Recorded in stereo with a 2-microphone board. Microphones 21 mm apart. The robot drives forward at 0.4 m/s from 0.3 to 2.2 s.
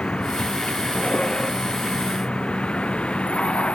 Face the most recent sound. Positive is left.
turn(degrees=60)  # may be behind; listen again after turning